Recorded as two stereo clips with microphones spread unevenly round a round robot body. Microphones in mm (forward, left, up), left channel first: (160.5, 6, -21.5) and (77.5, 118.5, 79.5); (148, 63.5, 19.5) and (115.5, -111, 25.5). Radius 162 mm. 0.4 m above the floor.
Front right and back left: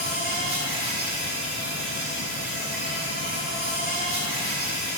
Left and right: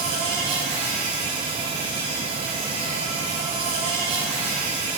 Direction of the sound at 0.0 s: 140° right.